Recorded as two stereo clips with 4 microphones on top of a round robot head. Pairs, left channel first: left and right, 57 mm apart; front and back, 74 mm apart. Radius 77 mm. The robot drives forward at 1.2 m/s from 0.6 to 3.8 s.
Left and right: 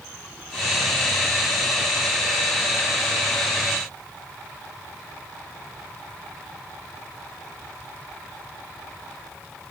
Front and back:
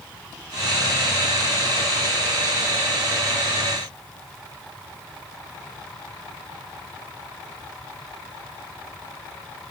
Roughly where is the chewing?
No chewing in this recording.